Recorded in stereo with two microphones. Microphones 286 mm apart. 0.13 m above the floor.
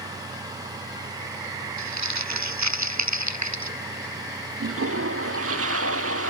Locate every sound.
1.8 s crumpling: 70° right (ahead or behind)
4.6 s a toilet flushing: 55° right (ahead or behind)